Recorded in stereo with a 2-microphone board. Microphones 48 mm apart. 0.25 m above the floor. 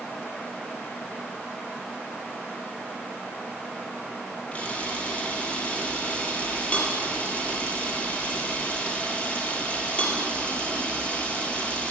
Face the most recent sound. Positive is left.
turn(degrees=30)  # may be behind; listen again after turning